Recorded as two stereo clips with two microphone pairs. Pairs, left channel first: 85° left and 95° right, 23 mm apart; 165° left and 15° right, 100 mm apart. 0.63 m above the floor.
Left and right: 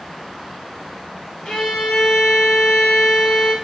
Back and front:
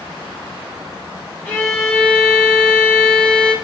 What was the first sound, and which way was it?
A violin, 100° left.